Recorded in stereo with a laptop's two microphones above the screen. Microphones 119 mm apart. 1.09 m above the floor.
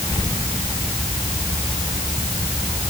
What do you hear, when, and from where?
Only background noise.